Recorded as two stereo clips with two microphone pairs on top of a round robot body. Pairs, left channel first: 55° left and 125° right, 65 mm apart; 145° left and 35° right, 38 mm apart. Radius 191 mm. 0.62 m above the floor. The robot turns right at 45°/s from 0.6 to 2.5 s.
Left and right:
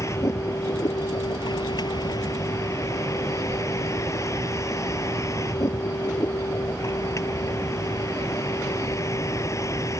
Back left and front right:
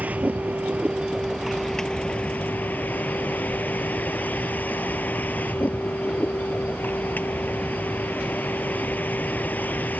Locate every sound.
0.0 s a vehicle: 15° left; by 10.0 s 100° left